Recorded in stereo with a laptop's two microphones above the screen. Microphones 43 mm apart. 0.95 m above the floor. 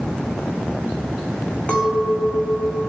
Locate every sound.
1.7 s a clink: 25° left (ahead or behind), 5 m